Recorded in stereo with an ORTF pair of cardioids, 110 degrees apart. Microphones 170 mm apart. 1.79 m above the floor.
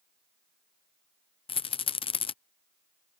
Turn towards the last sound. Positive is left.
turn(degrees=30)